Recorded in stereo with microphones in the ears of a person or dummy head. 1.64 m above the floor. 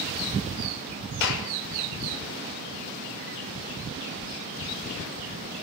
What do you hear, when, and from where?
1.2 s a clap: 65° left (ahead or behind), 6.5 m